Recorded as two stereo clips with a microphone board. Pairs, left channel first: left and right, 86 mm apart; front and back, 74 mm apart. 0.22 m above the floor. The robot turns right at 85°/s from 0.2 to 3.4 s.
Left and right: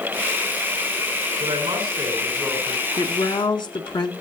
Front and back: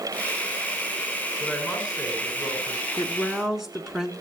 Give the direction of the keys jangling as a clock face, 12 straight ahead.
No keys jangling in this recording.